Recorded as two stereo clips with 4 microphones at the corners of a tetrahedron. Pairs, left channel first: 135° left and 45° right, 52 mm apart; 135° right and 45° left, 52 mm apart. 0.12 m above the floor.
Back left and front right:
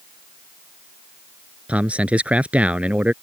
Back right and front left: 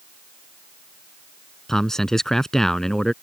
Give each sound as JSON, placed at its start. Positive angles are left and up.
{"t": 1.7, "sound": "a man speaking", "azimuth_deg": -65}